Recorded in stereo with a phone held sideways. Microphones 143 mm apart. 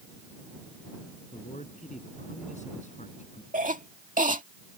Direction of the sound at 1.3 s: 55° left (ahead or behind).